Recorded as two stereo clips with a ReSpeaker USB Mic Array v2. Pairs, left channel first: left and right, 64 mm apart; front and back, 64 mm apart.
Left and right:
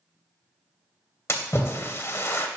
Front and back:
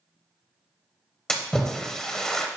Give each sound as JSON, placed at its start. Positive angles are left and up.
{"t": 1.3, "sound": "a splash", "azimuth_deg": 75, "distance_m": 0.7}